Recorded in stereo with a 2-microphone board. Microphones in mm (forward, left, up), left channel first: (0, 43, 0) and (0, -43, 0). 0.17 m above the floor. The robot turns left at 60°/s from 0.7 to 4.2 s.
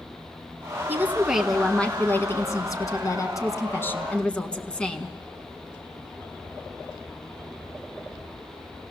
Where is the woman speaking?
145° right, 1.3 m; by 5.1 s 20° left, 1.3 m.